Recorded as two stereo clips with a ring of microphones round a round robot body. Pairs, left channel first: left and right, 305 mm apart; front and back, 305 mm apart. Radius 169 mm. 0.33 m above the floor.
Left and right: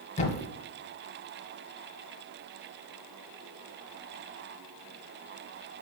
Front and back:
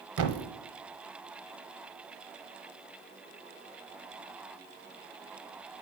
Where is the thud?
160° left, 0.8 m.